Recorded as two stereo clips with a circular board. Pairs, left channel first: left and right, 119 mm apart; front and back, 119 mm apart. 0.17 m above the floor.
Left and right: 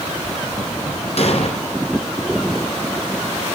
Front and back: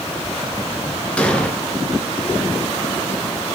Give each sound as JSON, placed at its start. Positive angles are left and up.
{"t": 1.2, "sound": "an explosion", "azimuth_deg": 80, "distance_m": 1.6}